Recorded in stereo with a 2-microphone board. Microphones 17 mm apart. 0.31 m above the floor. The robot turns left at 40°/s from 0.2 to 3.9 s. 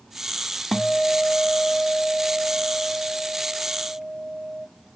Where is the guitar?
15° left, 0.6 m; by 4.7 s 115° right, 0.6 m.